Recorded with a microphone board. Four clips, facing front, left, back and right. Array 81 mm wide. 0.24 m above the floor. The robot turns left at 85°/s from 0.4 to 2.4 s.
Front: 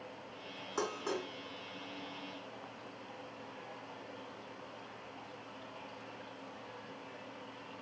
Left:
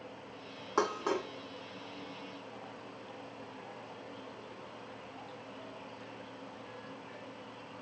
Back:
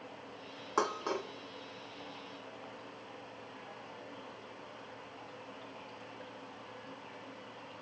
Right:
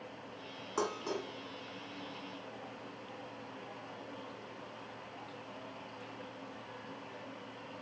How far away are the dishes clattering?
About 1.5 m.